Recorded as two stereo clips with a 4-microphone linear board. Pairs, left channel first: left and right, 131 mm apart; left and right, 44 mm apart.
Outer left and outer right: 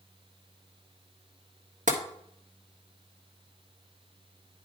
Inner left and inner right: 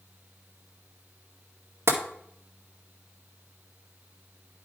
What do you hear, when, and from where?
1.9 s tapping: 70° right (ahead or behind), 1.6 m